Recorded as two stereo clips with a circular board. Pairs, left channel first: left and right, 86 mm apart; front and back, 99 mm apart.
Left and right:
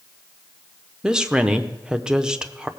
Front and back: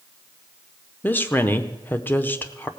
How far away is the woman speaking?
About 0.8 m.